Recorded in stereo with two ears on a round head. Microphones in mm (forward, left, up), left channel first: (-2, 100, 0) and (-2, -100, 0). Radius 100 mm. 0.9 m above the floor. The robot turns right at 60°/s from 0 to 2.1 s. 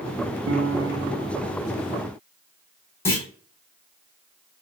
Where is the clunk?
10° left (ahead or behind), 0.9 m.